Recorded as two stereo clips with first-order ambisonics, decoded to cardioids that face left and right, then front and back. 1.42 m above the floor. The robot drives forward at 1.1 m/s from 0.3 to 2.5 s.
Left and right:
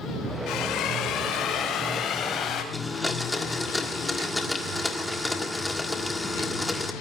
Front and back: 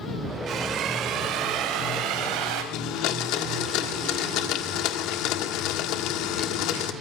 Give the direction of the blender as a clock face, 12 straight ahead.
12 o'clock.